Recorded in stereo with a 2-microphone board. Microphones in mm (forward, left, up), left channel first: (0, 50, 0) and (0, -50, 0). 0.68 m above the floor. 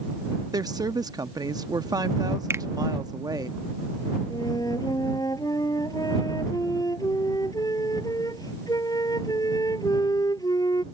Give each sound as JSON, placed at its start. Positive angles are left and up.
{"t": 0.5, "sound": "a woman speaking", "side_deg": -40}
{"t": 2.5, "sound": "a finger snap", "side_deg": -25}
{"t": 4.3, "sound": "a flute", "side_deg": 40}